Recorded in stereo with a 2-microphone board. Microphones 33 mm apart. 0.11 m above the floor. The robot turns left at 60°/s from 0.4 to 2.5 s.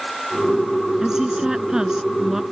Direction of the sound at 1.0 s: 15° right (ahead or behind).